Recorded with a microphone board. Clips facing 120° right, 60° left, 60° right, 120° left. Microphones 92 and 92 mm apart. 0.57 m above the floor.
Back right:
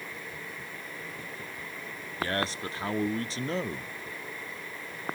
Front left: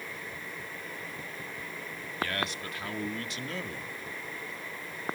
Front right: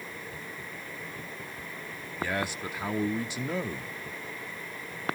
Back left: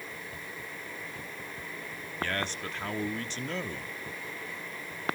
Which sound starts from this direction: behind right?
A man speaking, at 2.2 s.